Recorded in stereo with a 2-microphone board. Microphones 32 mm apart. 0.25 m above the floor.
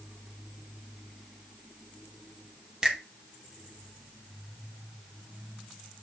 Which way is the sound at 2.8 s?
25° right (ahead or behind).